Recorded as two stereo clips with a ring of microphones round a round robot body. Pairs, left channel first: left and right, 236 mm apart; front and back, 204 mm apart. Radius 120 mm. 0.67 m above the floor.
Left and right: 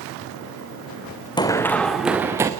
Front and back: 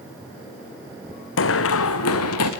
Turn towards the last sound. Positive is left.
turn(degrees=-15)